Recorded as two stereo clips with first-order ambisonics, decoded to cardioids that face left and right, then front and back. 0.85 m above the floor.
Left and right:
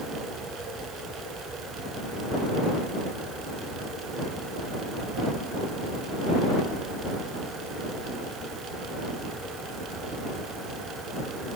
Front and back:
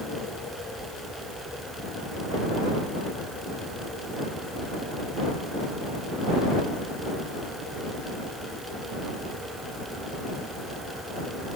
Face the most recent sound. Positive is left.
No sound to turn to.